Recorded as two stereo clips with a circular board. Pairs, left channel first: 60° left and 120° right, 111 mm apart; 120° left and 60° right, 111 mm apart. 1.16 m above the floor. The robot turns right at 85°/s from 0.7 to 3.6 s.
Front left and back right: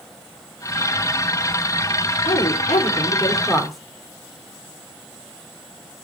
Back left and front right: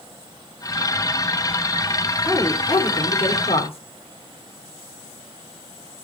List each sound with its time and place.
2.2 s a woman speaking: 35° left, 3.5 m; by 3.8 s 150° left, 3.5 m